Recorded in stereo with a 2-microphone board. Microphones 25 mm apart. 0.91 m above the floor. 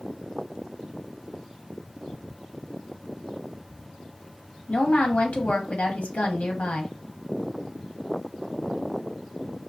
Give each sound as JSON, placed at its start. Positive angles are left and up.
{"t": 4.7, "sound": "a woman speaking", "side_deg": 65, "distance_m": 0.9}